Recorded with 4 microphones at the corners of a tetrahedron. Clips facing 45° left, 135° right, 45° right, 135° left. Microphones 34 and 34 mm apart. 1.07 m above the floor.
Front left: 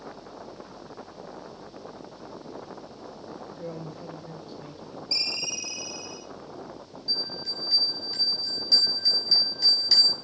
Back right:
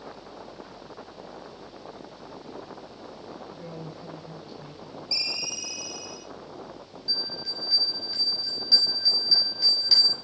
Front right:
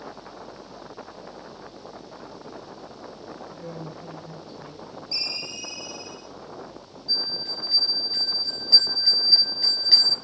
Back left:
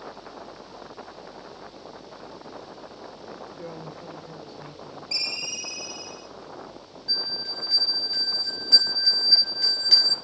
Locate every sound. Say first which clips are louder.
3.5 s a man speaking: front left 2 dB, front right 1 dB; 135° left, 3.5 m
5.1 s a ringtone: front left 1 dB, back left 1 dB; 135° left, 2.5 m
7.1 s a bell: even, front right 1 dB; 150° left, 6 m